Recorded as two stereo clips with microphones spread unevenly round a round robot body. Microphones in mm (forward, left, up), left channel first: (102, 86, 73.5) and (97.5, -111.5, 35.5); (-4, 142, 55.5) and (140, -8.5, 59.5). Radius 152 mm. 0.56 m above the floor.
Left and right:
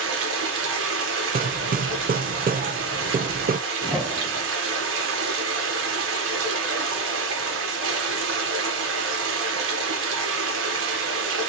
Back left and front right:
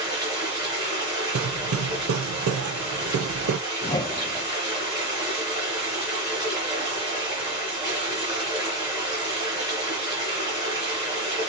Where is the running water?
120° right, 1.2 m.